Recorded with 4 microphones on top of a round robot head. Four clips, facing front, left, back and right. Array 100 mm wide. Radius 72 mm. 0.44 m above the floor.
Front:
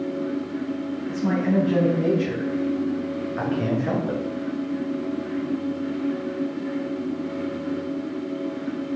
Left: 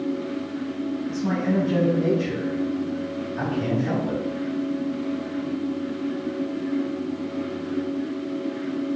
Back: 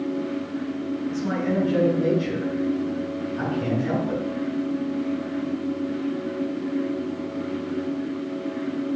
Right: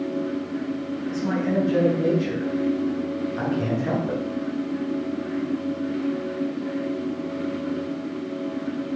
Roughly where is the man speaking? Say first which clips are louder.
Right 1 dB, front 4 dB; ahead.